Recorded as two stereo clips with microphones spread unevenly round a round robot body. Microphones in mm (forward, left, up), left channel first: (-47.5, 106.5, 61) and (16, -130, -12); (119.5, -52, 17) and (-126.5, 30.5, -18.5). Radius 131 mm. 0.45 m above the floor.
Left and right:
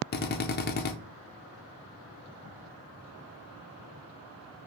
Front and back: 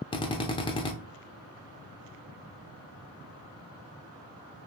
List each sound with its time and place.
0.1 s a drill: 55° left, 0.6 m